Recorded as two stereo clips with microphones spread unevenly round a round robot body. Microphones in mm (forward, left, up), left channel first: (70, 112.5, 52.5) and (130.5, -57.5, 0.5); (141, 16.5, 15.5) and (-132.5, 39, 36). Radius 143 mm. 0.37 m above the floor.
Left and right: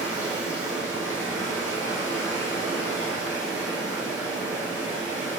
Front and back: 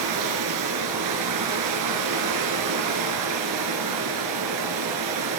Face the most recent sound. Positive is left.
turn(degrees=-155)